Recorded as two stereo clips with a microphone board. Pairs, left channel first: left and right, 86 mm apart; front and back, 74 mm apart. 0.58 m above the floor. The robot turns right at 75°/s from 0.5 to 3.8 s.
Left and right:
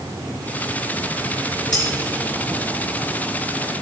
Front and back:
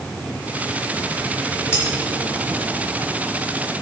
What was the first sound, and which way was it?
Cutlery clinking, 55° left.